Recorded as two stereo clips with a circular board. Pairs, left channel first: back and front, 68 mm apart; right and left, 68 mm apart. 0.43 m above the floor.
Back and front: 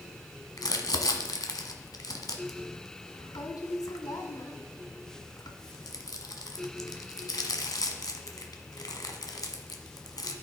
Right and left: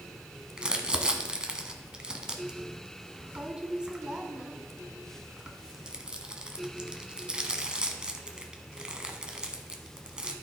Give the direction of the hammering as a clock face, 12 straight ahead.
No hammering in this recording.